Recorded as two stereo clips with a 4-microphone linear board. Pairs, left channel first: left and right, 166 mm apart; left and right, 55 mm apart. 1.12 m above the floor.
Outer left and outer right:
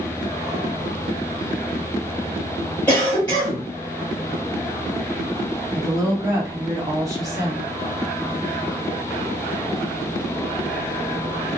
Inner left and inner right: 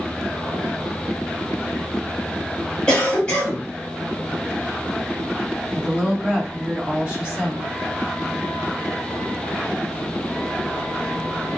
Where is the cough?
10° left (ahead or behind), 1.3 m.